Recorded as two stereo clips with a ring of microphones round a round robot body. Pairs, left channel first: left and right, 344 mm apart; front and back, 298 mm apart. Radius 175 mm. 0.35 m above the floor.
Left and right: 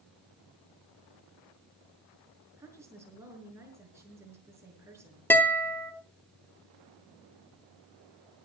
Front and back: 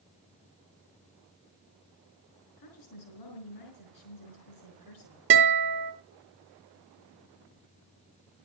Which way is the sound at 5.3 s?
170° left.